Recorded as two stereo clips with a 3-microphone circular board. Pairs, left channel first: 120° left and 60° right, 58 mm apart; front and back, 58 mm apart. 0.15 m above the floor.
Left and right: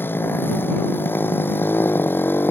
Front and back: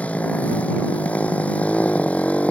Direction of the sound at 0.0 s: 65° left.